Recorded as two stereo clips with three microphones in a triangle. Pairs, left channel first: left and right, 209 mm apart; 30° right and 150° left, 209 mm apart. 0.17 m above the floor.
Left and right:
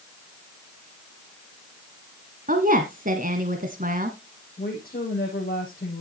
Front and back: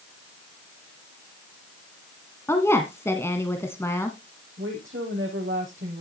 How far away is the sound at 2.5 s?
About 1.3 m.